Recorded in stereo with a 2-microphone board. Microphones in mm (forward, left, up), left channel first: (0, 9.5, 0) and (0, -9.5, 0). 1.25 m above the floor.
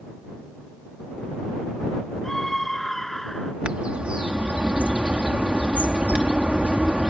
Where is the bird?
85° right.